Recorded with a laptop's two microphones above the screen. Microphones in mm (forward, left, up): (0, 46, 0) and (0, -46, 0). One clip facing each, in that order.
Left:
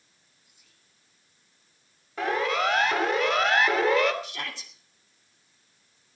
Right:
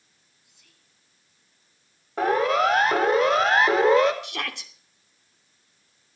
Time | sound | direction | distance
0.4 | whispering | 70° right (ahead or behind) | 5.5 m
2.2 | a siren | 40° right (ahead or behind) | 5 m
4.2 | a shout | 60° right (ahead or behind) | 2.5 m